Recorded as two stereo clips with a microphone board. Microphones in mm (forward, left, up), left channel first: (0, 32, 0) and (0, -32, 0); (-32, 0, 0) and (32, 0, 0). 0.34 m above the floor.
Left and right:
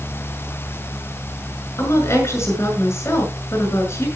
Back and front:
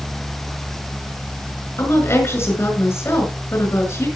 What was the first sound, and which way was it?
A woman speaking, 135° left.